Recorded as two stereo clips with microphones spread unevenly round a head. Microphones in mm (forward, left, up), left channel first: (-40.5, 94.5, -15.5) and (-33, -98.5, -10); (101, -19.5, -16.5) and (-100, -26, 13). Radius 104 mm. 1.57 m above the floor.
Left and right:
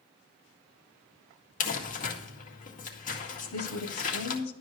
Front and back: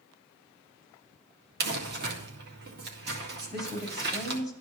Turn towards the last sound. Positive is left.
turn(degrees=95)